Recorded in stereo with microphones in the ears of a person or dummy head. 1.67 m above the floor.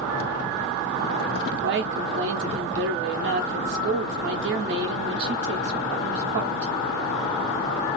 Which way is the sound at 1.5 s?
55° right (ahead or behind).